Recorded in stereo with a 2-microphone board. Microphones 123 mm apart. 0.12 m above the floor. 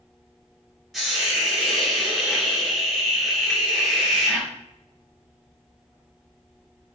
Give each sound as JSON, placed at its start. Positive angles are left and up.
{"t": 0.9, "sound": "a hiss", "side_deg": 0, "distance_m": 1.1}